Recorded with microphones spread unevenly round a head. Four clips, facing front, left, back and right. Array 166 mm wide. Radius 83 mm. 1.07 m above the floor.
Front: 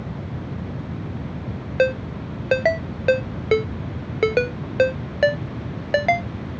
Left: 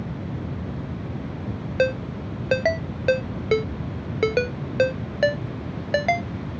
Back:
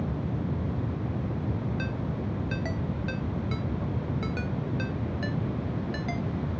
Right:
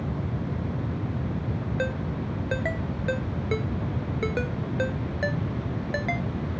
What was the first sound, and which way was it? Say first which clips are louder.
A ringtone: left 10 dB, front 11 dB; 30° left.